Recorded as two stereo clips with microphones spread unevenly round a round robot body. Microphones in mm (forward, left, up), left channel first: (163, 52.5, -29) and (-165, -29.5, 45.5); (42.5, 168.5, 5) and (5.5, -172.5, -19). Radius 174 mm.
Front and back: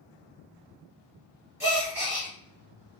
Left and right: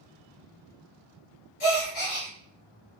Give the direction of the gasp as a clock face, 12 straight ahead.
8 o'clock.